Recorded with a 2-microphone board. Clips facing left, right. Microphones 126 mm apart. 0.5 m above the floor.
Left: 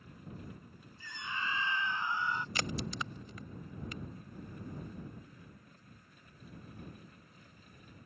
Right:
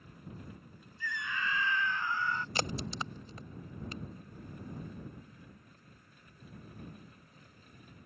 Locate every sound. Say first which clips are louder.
1.0 s a scream: right 3 dB; 30° left (ahead or behind); by 2.5 s 20° left (ahead or behind)
2.5 s a crack: right 2 dB; 30° right (ahead or behind)